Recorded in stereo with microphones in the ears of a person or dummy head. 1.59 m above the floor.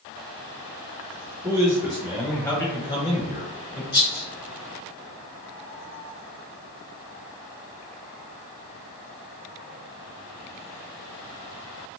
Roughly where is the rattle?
Left.